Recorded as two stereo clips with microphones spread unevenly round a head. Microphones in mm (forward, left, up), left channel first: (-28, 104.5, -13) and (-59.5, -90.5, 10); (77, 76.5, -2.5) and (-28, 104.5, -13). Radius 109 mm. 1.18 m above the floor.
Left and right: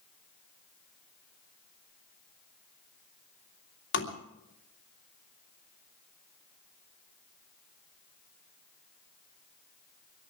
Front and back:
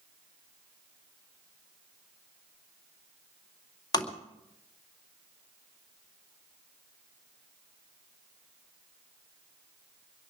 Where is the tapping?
40° left, 2.5 m.